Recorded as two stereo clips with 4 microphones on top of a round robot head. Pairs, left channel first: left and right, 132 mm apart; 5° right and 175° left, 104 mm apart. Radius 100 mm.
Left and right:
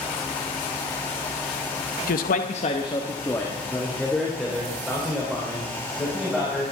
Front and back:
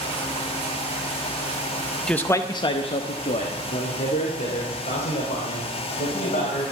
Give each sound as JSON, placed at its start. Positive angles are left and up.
{"t": 2.1, "sound": "a man speaking", "azimuth_deg": 80, "distance_m": 0.8}